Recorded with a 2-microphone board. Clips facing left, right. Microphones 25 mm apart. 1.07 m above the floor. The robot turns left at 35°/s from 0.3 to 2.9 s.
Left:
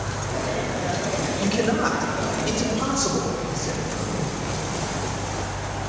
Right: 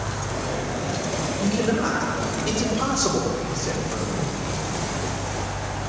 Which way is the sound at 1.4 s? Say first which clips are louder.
Even; 35° left.